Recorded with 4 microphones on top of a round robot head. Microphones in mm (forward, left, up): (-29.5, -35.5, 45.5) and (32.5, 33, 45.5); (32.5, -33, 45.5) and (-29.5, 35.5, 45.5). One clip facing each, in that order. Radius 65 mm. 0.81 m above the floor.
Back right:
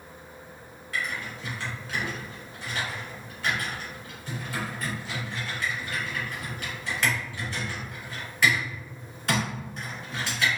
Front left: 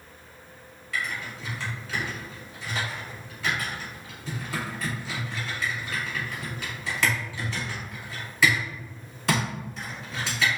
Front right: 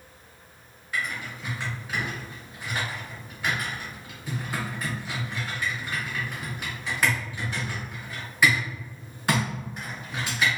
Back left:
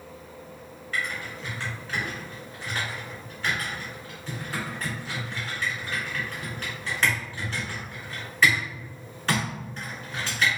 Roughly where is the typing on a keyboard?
Ahead left.